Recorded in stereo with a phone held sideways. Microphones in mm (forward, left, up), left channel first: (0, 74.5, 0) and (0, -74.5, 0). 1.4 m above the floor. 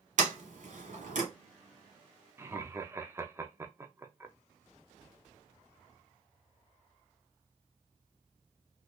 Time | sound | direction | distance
0.2 | a sliding door | 60° right (ahead or behind) | 1.3 m
2.4 | laughter | 20° right (ahead or behind) | 0.6 m